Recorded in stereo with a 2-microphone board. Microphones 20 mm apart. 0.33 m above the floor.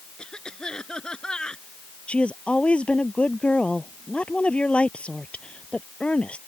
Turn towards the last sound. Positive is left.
turn(degrees=65)  # may be behind; listen again after turning